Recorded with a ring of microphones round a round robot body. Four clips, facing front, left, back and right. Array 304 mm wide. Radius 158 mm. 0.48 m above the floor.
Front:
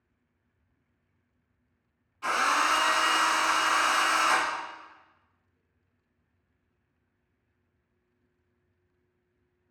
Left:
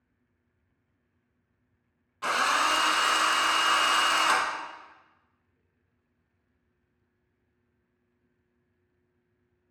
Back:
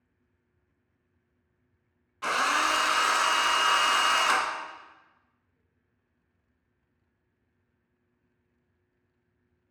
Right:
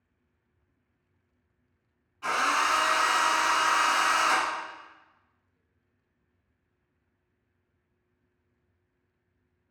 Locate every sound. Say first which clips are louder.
2.2 s a drill: even, even; 130° left, 0.7 m